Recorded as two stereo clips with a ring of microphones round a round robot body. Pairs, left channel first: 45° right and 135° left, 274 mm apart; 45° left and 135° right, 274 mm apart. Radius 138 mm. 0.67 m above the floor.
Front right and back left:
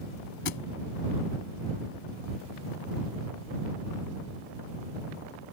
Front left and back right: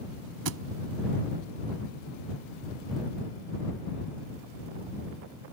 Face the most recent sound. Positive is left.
turn(degrees=-95)